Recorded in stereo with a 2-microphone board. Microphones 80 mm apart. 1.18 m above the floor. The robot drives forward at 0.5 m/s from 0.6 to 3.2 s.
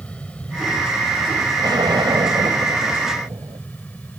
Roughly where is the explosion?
Right.